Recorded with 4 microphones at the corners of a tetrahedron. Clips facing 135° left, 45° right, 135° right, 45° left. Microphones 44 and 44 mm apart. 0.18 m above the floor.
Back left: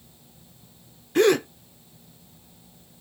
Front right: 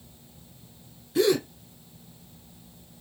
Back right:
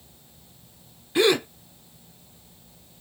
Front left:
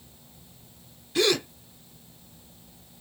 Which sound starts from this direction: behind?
A gasp, at 1.1 s.